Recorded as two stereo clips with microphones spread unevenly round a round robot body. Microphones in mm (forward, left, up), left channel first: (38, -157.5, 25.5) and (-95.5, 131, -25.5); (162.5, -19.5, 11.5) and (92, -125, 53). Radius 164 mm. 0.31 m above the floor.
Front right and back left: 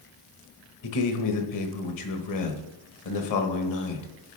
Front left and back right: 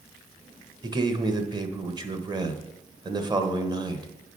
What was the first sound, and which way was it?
A man speaking, 55° right.